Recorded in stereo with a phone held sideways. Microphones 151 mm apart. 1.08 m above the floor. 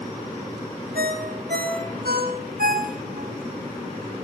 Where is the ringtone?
85° right, 4 m.